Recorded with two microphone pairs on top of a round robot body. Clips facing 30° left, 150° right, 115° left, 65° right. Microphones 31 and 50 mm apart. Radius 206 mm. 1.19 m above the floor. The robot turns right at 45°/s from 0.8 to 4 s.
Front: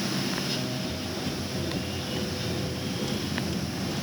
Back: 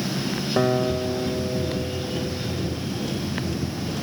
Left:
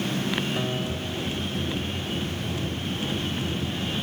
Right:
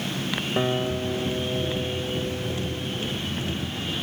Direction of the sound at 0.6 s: 130° right.